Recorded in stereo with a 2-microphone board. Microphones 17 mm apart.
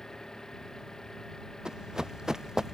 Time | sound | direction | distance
0.0 | an engine running | 30° left (ahead or behind) | ?
1.6 | running footsteps | 45° right (ahead or behind) | ?